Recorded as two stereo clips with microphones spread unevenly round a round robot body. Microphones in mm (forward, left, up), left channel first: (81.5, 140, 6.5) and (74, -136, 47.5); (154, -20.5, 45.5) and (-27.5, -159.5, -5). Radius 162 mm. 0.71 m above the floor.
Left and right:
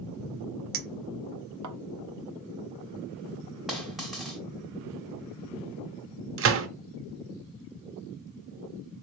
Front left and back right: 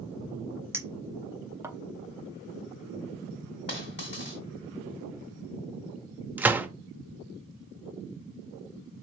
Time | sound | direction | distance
0.7 | a clink | 70° right | 0.8 m
3.7 | a dropped coin | 5° right | 1.3 m
6.4 | a gunshot | 55° right | 0.7 m